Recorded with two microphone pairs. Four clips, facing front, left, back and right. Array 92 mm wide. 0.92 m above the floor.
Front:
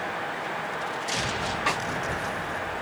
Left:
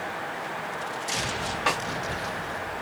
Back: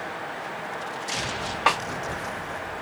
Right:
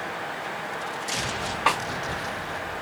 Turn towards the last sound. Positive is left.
turn(degrees=-165)